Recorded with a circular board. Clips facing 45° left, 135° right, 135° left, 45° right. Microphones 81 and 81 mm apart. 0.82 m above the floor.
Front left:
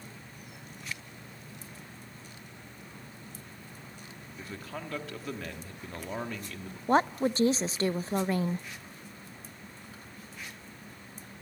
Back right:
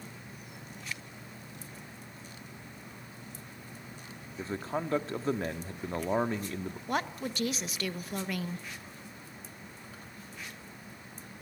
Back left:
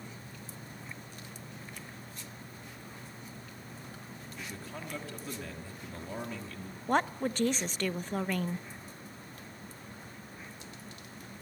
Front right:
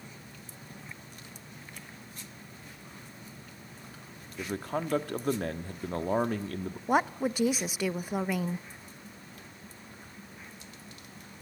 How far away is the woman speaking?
About 0.6 m.